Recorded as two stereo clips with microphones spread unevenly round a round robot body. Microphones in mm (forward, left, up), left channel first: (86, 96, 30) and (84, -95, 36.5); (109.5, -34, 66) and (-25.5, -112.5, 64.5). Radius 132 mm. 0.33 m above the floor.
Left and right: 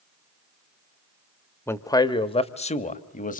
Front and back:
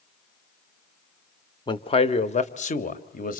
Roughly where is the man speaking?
Ahead left.